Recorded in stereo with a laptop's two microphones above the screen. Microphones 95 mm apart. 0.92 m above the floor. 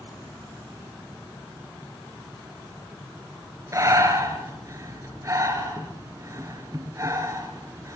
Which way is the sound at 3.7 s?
35° right (ahead or behind).